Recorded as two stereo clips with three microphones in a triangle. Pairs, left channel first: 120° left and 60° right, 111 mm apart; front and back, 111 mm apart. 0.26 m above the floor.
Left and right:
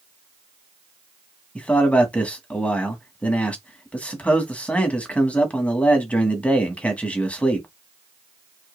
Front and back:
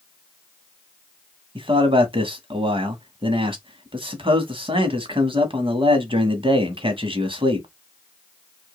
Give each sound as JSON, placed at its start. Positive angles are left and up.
{"t": 1.6, "sound": "a man speaking", "azimuth_deg": -165, "distance_m": 1.4}